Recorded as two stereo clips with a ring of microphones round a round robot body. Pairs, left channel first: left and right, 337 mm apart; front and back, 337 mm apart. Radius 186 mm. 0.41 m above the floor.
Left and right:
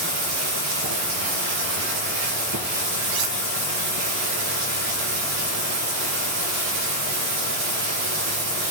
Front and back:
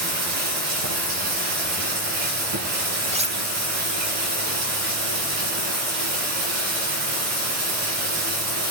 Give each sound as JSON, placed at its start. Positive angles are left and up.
{"t": 0.0, "sound": "running water", "azimuth_deg": -140, "distance_m": 5.0}
{"t": 3.1, "sound": "cutlery clinking", "azimuth_deg": -110, "distance_m": 1.4}